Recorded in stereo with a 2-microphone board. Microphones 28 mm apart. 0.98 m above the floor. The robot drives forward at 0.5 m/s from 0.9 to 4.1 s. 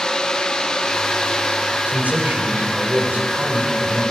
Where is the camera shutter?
No camera shutter in this recording.